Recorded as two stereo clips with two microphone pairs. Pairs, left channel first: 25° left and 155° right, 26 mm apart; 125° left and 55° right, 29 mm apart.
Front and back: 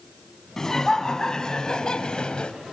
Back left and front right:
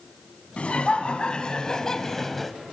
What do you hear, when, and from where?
0.6 s laughter: 95° left, 3 m; by 2.5 s 40° left, 1.9 m